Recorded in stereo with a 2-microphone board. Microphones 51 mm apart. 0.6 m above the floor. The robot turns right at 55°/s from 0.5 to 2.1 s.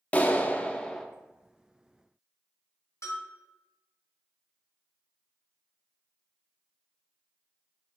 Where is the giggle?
No giggle in this recording.